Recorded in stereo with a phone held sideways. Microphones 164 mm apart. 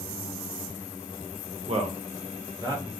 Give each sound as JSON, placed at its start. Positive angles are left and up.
{"t": 1.7, "sound": "a man speaking", "side_deg": -40, "distance_m": 0.6}